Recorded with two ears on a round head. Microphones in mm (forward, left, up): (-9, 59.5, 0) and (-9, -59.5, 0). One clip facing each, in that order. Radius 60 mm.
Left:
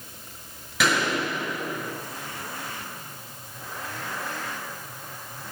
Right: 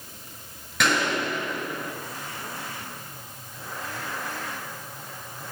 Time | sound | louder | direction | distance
0.8 | a gunshot | even | centre (ahead or behind) | 7 m